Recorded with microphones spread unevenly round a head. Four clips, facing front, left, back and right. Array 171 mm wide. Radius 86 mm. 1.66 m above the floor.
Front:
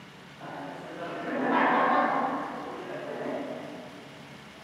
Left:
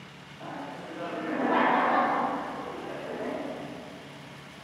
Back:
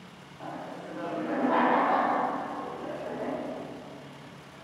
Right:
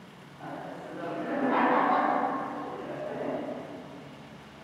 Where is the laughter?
Straight behind, 1.4 m.